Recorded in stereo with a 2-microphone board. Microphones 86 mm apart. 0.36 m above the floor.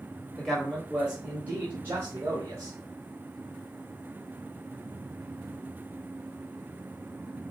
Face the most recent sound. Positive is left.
turn(degrees=-40)  # may be behind; listen again after turning